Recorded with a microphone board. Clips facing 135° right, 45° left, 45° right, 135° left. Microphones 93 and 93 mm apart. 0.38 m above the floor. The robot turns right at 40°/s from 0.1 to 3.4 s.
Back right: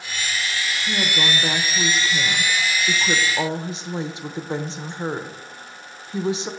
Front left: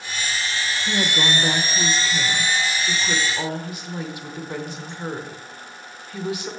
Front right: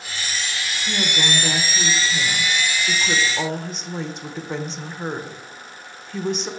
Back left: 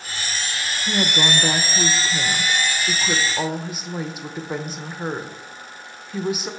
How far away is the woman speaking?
About 0.8 m.